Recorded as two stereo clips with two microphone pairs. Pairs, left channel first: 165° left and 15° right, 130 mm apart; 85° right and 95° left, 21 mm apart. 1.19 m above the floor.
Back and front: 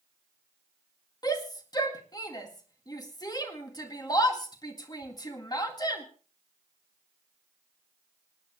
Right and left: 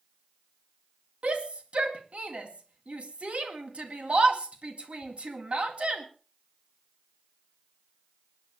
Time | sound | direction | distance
1.2 | a shout | 105° left | 2 m